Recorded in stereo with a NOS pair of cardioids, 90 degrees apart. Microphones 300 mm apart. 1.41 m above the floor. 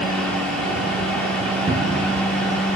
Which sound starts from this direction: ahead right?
A cupboard door, at 1.7 s.